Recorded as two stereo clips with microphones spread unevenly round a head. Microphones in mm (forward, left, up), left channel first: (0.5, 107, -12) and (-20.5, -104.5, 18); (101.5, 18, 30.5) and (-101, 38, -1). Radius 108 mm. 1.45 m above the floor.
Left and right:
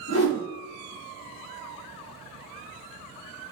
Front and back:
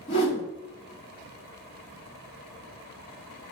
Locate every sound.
0.1 s a whoosh: 55° left, 3.5 m